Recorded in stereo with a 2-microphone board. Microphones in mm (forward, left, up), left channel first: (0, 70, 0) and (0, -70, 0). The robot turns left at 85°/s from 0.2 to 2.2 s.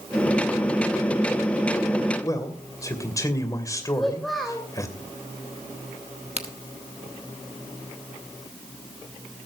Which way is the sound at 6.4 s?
45° right (ahead or behind).